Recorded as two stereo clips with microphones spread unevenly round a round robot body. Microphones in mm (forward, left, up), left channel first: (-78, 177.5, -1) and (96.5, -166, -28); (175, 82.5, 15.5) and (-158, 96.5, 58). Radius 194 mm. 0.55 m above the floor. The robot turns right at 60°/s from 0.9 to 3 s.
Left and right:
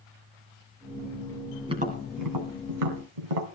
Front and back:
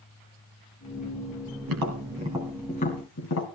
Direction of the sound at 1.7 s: 145° right.